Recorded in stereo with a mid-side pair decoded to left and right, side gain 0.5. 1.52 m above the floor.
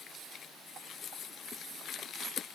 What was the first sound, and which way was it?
Only background noise.